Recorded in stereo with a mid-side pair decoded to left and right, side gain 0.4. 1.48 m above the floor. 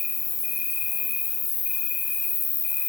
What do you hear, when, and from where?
0.0 s an insect: 65° left, 1.9 m